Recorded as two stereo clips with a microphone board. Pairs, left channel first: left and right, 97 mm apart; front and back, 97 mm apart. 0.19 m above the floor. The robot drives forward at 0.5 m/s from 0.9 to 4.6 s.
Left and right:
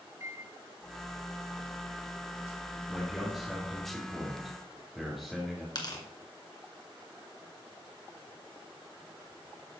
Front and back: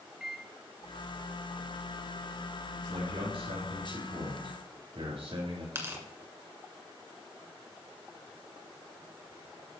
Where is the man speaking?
175° left, 3 m.